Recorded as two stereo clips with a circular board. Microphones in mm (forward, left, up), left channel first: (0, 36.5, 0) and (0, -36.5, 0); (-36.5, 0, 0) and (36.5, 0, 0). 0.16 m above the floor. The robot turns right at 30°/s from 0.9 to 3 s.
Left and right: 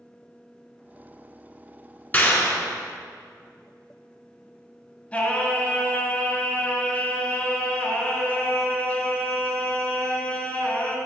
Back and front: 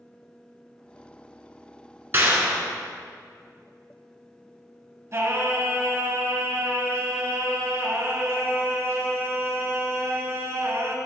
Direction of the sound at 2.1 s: 45° left.